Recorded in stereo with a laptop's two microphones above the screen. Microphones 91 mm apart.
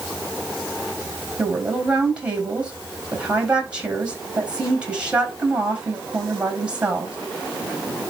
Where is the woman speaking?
10° right (ahead or behind), 5 m.